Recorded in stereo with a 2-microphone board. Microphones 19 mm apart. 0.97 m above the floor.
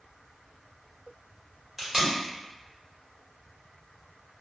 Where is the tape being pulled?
20° right (ahead or behind), 1.2 m.